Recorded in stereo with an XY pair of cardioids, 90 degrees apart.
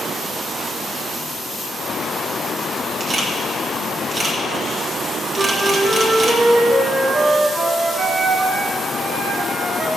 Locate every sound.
3.0 s a camera shutter: 40° right, 2 m
5.3 s a flute: 30° right, 2.5 m